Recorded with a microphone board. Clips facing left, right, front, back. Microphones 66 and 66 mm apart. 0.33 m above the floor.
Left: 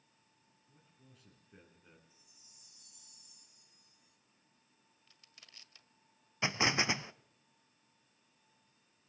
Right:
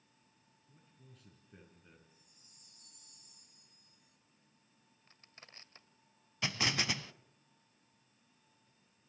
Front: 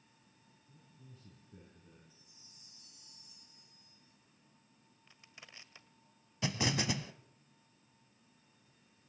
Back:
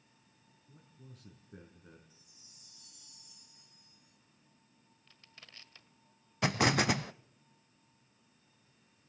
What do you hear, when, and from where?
0.7 s a man speaking: straight behind, 4.5 m
2.1 s a chime: 60° right, 1.8 m
5.1 s crushing: 65° right, 1.7 m
6.4 s an explosion: 155° left, 0.6 m